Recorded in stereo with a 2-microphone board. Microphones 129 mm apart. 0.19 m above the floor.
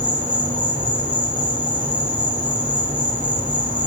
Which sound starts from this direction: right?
An insect, at 0.0 s.